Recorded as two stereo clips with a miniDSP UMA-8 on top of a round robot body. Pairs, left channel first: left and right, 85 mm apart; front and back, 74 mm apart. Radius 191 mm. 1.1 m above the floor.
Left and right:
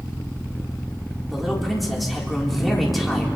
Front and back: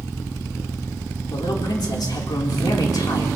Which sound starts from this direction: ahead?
A man speaking, at 1.3 s.